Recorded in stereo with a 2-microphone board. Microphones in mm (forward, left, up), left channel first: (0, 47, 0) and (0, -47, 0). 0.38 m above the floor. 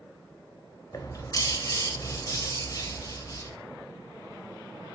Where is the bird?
40° left (ahead or behind), 0.5 m.